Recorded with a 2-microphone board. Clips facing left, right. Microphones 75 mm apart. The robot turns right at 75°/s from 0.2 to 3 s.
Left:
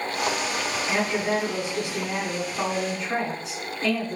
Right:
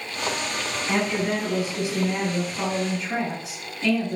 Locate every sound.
0.9 s a woman speaking: 15° right, 2 m; by 4.2 s 145° left, 2 m